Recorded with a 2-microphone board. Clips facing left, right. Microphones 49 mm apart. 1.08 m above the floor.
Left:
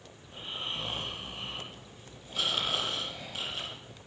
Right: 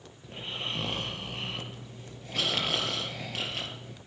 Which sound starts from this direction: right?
Snoring, at 0.2 s.